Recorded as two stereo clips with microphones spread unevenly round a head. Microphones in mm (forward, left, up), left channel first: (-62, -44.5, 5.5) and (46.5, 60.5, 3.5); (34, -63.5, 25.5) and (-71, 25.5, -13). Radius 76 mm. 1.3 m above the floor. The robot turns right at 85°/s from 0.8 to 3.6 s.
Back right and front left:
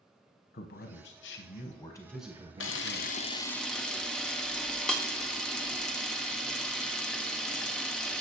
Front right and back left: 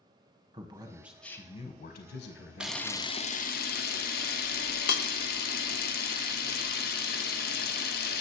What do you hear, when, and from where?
0.5 s a man speaking: 165° right, 0.7 m; by 3.2 s 40° left, 0.7 m
2.6 s a camera shutter: 135° right, 0.7 m; by 8.2 s 50° right, 0.7 m